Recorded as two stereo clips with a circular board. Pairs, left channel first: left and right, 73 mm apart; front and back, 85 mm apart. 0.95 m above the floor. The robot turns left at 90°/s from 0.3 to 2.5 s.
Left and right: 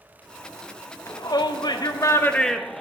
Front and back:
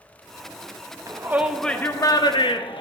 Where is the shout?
135° left, 0.9 m; by 2.8 s 5° left, 0.9 m.